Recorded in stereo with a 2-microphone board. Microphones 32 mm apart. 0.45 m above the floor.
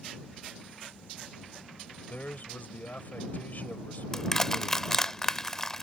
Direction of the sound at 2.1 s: 60° left (ahead or behind).